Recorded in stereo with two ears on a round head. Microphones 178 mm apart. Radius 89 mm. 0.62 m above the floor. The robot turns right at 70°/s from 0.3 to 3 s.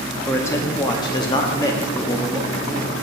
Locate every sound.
0.3 s a man speaking: 10° left (ahead or behind), 0.7 m; by 3.0 s 10° right (ahead or behind), 0.7 m